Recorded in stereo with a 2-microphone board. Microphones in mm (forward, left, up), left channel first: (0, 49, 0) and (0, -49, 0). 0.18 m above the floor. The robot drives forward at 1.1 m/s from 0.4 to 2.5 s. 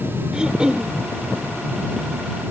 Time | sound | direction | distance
0.3 | throat clearing | 10° right (ahead or behind) | ?